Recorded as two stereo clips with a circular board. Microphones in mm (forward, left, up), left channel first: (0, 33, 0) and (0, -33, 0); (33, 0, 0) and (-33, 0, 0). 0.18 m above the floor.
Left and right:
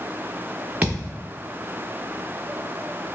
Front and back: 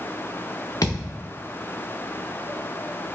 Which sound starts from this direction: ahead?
A thud, at 0.8 s.